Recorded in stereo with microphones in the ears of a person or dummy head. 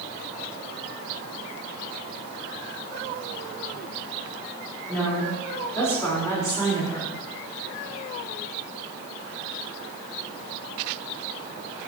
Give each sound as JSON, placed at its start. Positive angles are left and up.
{"t": 4.9, "sound": "a woman speaking", "side_deg": 5, "distance_m": 3.5}